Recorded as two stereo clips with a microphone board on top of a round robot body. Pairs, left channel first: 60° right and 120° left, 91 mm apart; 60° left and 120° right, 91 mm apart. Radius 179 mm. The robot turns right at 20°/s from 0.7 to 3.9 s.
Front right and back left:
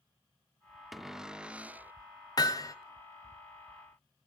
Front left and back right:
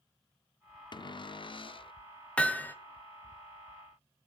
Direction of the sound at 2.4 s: 15° right.